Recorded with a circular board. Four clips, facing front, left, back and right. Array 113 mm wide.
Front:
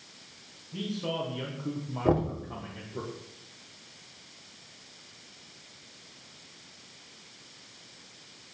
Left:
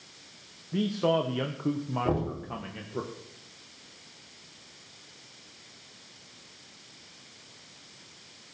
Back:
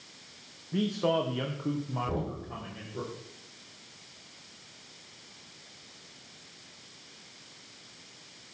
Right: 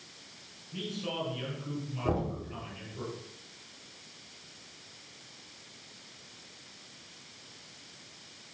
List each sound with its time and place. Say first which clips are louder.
0.7 s a man speaking: left 11 dB, back 6 dB; 130° left, 1.1 m; by 3.0 s 80° left, 1.9 m
2.0 s knocking: left 1 dB, front 13 dB; 10° left, 3 m